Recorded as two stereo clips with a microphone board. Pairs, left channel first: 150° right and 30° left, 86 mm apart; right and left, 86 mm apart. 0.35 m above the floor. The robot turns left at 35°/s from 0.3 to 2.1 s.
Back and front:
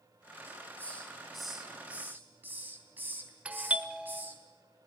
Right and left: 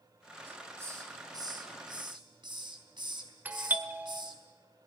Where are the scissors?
I don't hear scissors.